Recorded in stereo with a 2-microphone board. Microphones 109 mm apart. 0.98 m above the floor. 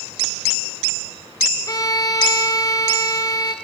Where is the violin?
30° left (ahead or behind), 3 m.